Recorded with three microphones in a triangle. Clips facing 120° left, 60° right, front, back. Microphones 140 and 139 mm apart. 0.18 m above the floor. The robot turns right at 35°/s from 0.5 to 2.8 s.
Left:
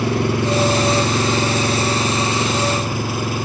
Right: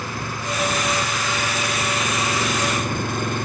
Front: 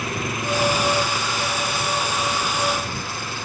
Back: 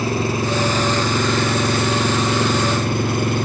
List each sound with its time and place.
0.0 s an engine running: 120° left; by 3.5 s 155° right